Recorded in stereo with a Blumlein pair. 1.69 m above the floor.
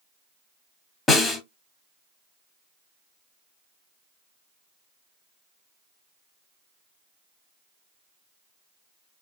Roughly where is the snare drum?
Ahead.